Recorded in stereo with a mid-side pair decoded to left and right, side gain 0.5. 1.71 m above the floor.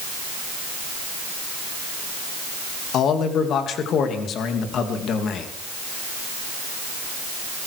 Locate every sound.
2.9 s a man speaking: 60° left, 2.5 m